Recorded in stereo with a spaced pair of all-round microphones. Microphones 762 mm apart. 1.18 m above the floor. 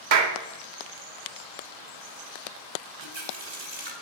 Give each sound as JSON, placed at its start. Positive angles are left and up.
{"t": 0.1, "sound": "a clap", "side_deg": -70, "distance_m": 0.8}
{"t": 3.0, "sound": "a running tap", "side_deg": -35, "distance_m": 1.4}